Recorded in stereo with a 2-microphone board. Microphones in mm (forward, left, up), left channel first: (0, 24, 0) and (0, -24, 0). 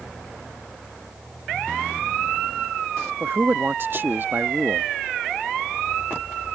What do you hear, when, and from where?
3.2 s a man speaking: 45° right (ahead or behind)